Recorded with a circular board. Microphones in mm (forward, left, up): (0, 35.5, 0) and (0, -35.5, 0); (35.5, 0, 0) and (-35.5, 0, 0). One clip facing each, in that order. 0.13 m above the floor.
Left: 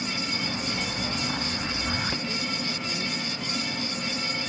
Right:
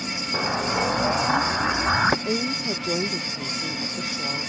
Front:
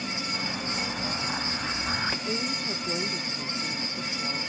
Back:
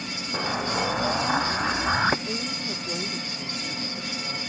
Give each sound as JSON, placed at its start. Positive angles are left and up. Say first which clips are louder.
{"t": 0.3, "sound": "an explosion", "louder": "right 7 dB, back 11 dB", "azimuth_deg": -130}
{"t": 2.2, "sound": "a woman speaking", "louder": "right 5 dB, front 1 dB", "azimuth_deg": -85}